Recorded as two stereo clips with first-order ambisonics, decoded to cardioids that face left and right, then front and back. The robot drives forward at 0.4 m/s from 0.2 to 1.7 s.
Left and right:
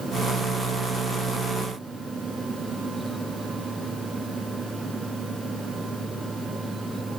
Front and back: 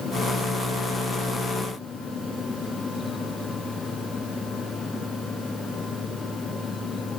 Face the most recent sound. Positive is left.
No sound to turn to.